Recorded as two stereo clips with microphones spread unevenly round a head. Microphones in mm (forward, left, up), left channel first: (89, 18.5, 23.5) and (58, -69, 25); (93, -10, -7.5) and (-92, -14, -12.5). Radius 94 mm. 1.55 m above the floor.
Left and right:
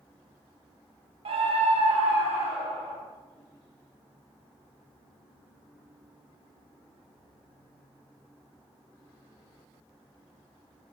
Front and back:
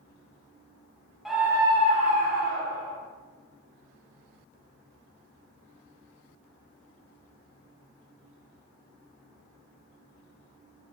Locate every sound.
1.2 s a scream: 90° right, 0.7 m; by 3.0 s 150° right, 1.0 m